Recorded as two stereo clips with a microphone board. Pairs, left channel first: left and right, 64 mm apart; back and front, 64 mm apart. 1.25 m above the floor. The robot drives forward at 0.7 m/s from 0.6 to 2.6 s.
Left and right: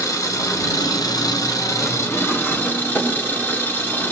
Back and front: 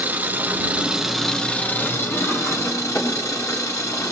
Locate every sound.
0.0 s an engine running: 60° left, 0.8 m; by 4.1 s 145° left, 1.2 m